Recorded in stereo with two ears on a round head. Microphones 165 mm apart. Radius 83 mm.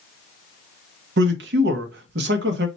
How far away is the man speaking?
About 0.8 m.